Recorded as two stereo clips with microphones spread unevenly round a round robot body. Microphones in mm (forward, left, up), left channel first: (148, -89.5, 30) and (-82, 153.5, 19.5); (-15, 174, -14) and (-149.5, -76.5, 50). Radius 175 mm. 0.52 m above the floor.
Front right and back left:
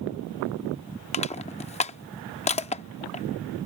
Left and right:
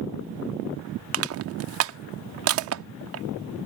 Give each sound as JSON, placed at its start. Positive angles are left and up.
{"t": 1.1, "sound": "crushing", "azimuth_deg": -105}